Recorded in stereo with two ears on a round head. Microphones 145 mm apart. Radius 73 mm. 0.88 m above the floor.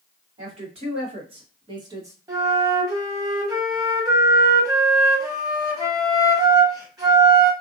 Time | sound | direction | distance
0.4 | a woman speaking | 40° right (ahead or behind) | 1.6 m
2.3 | a flute | 20° right (ahead or behind) | 1.4 m